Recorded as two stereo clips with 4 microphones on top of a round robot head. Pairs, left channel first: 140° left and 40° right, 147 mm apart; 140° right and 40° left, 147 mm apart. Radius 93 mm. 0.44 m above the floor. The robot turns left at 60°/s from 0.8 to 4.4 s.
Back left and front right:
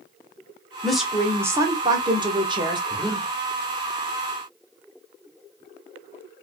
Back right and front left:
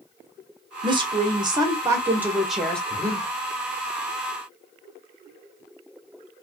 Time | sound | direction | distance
0.8 | a woman speaking | 55° left | 1.1 m
2.9 | breathing | 60° left | 1.4 m